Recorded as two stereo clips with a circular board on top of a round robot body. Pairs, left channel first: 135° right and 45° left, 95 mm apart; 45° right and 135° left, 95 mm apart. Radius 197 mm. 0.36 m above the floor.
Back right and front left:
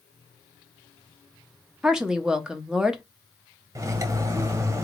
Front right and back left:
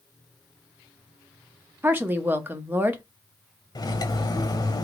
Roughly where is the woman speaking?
Behind left.